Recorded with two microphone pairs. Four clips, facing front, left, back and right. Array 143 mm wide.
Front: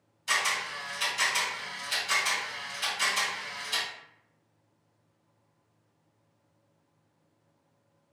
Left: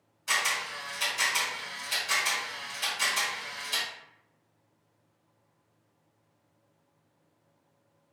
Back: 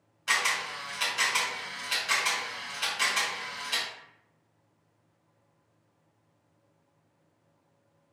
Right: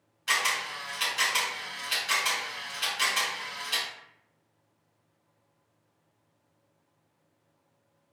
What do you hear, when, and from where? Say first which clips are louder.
0.3 s a camera shutter: right 1 dB, back 1 dB; 165° right, 1.8 m